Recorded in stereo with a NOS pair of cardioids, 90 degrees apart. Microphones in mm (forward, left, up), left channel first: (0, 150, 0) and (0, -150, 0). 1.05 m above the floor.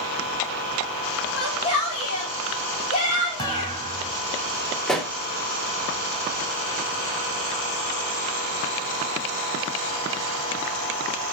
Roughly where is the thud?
Ahead.